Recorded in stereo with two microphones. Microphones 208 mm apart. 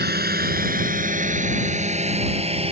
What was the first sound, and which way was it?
A drone, 45° right (ahead or behind).